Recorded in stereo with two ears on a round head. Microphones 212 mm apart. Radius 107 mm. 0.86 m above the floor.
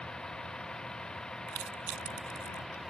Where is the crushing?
90° right.